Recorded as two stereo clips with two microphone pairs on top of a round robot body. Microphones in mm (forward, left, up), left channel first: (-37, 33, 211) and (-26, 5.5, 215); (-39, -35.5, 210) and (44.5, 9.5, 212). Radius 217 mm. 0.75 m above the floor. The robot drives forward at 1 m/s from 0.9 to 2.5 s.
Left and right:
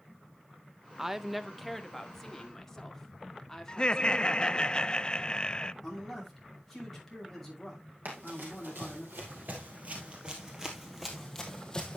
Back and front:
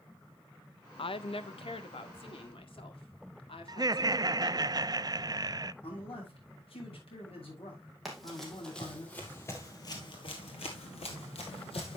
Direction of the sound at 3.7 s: 65° left.